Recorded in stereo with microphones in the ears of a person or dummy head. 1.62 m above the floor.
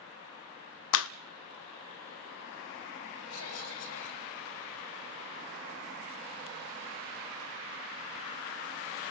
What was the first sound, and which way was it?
A clap, 70° left (ahead or behind).